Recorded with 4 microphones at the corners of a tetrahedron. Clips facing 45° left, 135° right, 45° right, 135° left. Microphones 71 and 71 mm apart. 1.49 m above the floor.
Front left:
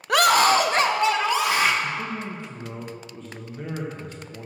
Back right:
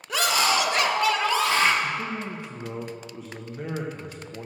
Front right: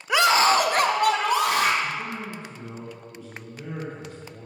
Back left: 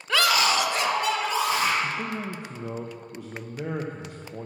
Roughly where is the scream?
Ahead left.